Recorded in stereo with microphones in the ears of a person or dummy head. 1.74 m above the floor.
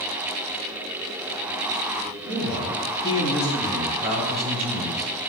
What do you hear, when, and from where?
2.2 s a man speaking: 30° right (ahead or behind), 4 m; by 3.9 s 10° right (ahead or behind), 3 m
4.0 s a man speaking: 45° right (ahead or behind), 3 m